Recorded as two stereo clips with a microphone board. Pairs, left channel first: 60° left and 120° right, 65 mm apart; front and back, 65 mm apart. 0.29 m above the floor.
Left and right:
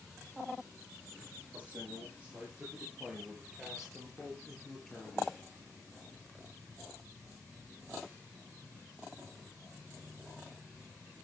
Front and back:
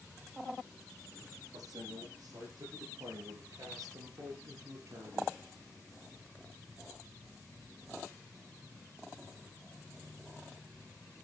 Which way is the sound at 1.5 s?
175° left.